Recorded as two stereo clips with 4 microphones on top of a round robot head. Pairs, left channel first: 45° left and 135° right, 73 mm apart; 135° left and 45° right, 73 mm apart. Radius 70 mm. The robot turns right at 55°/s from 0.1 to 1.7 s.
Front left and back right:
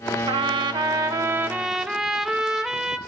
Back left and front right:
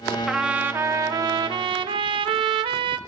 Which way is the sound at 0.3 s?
130° right.